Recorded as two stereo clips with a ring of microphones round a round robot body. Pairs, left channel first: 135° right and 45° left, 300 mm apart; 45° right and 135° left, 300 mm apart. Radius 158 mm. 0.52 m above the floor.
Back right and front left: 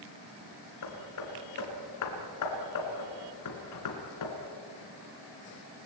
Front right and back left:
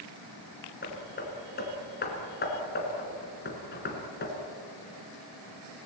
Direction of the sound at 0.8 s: 105° right.